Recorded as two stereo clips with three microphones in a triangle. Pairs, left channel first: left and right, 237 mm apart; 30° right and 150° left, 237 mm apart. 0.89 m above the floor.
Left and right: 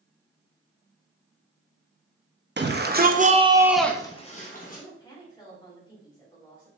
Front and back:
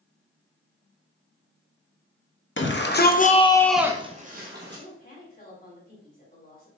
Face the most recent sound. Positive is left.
turn(degrees=15)